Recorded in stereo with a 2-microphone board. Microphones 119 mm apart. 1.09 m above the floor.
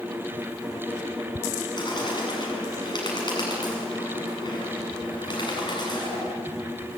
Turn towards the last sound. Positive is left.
turn(degrees=40)  # may be behind; listen again after turning